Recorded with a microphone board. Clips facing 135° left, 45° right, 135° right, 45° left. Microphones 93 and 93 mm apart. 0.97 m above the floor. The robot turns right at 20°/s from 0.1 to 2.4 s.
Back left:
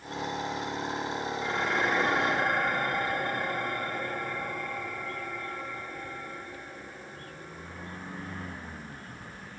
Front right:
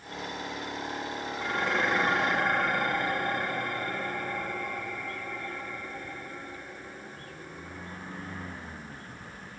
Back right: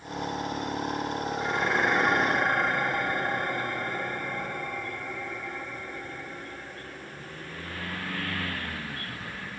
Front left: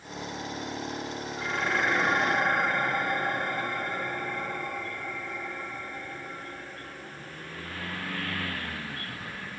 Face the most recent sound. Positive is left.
turn(degrees=-45)